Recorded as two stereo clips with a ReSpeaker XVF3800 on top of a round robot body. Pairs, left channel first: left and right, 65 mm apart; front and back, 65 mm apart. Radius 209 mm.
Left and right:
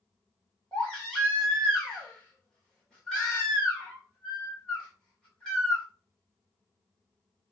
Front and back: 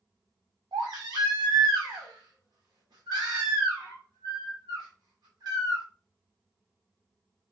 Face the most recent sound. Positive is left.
turn(degrees=170)